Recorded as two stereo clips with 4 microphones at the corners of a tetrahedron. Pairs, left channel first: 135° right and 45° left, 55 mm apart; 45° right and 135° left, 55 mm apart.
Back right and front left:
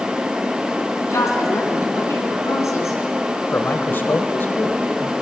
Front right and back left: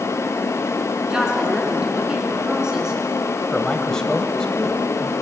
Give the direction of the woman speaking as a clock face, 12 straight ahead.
5 o'clock.